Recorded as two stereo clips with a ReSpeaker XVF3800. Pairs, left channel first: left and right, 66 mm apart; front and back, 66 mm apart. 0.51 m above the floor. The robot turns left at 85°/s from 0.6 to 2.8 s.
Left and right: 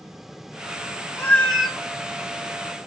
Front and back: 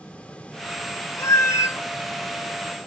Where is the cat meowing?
35° left, 0.7 m; by 1.8 s 15° right, 0.7 m.